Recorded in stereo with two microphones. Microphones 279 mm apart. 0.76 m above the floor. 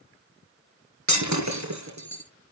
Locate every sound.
1.1 s breaking glass: 75° right (ahead or behind), 3.5 m